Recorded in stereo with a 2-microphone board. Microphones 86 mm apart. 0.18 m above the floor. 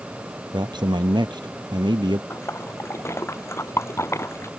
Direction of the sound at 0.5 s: 60° right (ahead or behind).